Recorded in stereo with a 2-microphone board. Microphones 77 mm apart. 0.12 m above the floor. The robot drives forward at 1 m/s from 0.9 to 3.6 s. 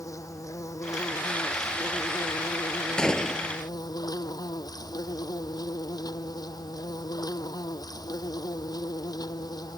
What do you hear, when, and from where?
0.0 s an insect: 45° left (ahead or behind); by 9.8 s 60° left (ahead or behind)
3.0 s a gunshot: 10° left (ahead or behind)